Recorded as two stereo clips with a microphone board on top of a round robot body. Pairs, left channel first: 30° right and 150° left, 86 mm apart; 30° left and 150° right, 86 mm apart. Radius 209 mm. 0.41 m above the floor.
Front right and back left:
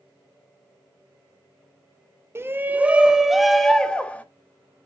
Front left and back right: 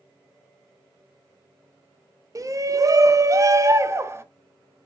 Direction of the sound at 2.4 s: 165° right.